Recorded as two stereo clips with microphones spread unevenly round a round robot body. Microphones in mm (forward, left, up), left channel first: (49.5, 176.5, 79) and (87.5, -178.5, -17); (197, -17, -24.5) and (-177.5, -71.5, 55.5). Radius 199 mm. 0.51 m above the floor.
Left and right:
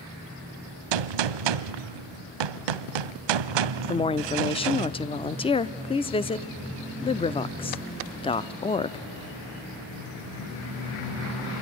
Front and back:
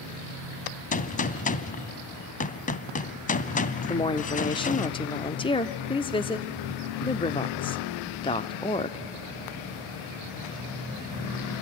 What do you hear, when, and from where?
0.9 s a gunshot: 65° right, 0.7 m
3.9 s a woman speaking: 5° left, 0.7 m